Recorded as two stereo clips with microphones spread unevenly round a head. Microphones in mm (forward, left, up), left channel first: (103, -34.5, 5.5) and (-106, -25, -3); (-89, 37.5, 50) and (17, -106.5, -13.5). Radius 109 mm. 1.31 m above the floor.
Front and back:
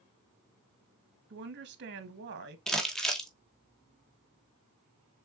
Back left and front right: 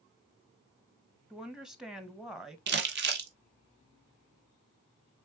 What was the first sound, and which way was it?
A woman speaking, 145° right.